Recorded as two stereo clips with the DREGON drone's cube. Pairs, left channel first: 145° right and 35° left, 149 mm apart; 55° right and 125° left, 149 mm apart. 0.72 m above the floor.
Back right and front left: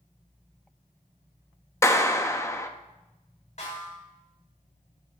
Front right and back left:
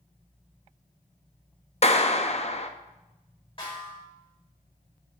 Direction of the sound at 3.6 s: 105° right.